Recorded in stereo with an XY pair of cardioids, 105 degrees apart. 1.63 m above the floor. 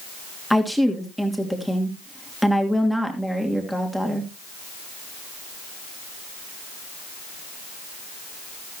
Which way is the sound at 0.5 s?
5° right.